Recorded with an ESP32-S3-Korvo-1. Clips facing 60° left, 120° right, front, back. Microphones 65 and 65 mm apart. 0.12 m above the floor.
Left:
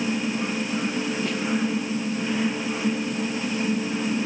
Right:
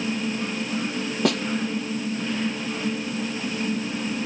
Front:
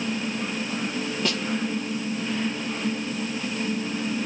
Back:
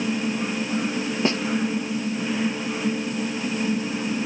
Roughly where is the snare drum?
Behind right.